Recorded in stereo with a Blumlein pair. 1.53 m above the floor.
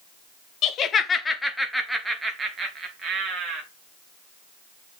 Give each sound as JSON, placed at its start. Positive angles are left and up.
{"t": 0.6, "sound": "laughter", "azimuth_deg": 35, "distance_m": 1.1}